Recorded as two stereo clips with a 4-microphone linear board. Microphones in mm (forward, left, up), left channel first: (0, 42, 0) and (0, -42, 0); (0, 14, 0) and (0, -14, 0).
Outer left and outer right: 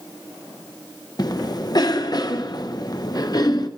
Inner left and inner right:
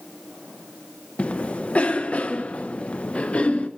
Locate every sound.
1.2 s a cough: 50° left (ahead or behind), 0.7 m